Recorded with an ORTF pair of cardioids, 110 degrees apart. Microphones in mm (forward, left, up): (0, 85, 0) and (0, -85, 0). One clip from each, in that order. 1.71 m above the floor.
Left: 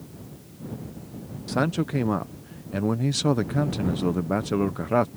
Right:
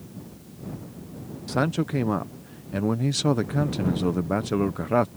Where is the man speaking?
Straight ahead.